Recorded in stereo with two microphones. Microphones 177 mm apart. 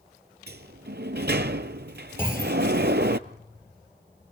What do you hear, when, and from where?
0.5 s a sliding door: 75° right (ahead or behind), 0.6 m
2.2 s a clunk: 10° left (ahead or behind), 4.5 m